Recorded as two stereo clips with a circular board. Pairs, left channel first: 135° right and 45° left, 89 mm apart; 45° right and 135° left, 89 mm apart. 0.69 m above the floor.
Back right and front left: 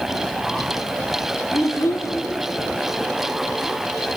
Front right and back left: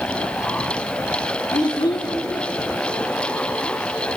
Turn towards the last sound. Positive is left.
turn(degrees=-80)